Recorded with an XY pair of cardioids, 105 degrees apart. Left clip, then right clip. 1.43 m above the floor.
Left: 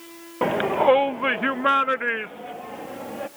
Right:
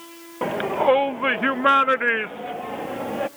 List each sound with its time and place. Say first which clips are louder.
0.4 s a shout: left 1 dB; 25° left; by 3.3 s 40° right